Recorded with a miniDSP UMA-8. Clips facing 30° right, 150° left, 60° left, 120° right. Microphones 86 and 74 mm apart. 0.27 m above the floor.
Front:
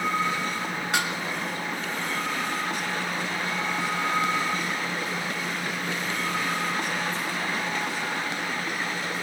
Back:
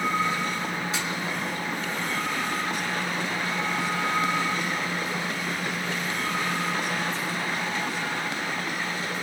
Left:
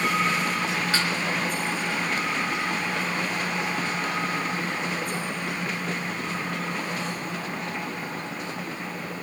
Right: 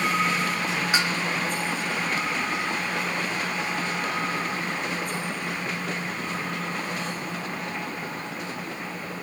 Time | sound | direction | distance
0.9 | dishes clattering | 50° right | 2.5 m